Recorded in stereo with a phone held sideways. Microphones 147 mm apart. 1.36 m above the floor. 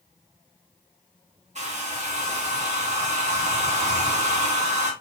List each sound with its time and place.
1.6 s a hair dryer: 50° right (ahead or behind), 2.5 m